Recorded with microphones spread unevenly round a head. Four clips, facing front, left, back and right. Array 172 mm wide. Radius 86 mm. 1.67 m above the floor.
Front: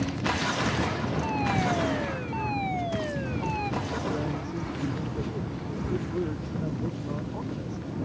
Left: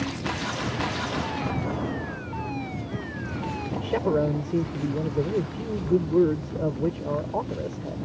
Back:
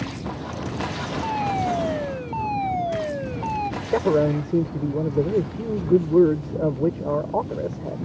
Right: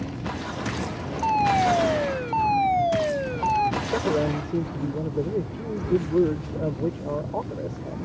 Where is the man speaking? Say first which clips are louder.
Even, back 11 dB; straight behind.